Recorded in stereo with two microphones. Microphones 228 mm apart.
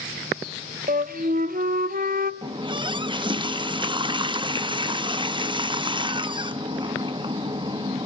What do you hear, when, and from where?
0.9 s a flute: 40° right (ahead or behind), 0.8 m
2.4 s a running tap: 20° right (ahead or behind), 0.7 m